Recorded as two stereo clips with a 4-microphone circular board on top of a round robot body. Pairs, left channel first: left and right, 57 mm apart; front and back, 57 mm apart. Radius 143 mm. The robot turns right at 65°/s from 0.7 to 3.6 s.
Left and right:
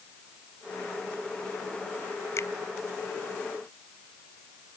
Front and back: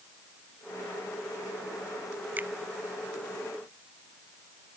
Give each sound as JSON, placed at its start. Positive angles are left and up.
{"t": 2.4, "sound": "a finger snap", "azimuth_deg": 120}